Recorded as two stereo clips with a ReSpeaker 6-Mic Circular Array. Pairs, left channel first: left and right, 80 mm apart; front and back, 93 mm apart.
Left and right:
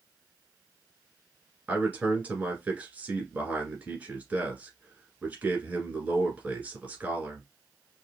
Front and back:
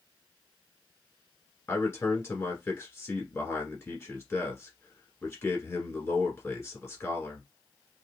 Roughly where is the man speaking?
Ahead right.